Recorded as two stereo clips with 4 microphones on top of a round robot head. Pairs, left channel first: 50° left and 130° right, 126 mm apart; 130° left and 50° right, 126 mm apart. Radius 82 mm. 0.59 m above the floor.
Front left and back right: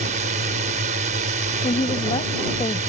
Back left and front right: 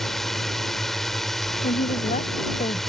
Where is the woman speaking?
100° left.